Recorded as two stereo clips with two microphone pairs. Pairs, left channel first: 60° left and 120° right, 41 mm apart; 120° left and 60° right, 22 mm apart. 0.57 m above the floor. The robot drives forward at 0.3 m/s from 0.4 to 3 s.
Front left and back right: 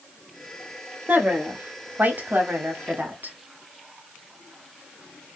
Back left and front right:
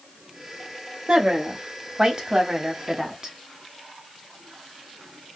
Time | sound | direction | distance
1.1 | a woman speaking | 100° right | 1.5 m